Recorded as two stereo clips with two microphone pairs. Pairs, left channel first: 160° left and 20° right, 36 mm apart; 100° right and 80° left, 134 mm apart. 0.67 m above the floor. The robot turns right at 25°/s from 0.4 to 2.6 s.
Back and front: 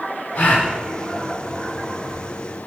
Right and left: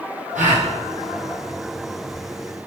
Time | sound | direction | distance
0.3 | a gasp | 95° left | 5 m